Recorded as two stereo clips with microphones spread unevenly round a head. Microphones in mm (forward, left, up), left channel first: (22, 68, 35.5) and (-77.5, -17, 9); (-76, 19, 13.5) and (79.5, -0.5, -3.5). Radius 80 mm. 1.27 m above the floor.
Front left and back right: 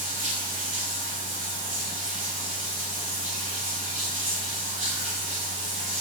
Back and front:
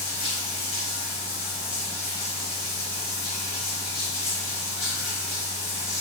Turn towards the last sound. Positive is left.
turn(degrees=-160)